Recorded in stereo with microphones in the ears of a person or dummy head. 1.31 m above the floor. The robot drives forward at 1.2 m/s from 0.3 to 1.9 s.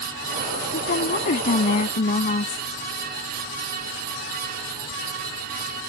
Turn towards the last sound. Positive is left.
turn(degrees=35)  # may be behind; listen again after turning